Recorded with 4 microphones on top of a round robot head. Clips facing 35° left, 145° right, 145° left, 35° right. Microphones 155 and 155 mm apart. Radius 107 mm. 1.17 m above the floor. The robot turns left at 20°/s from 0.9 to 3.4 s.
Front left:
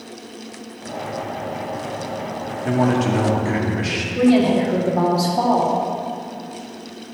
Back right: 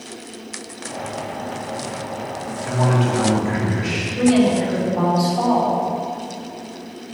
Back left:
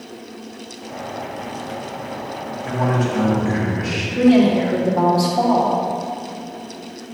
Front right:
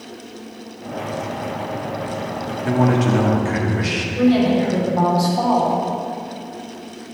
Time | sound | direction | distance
2.6 | a man speaking | straight ahead | 2 m
4.2 | a woman speaking | 90° left | 2.5 m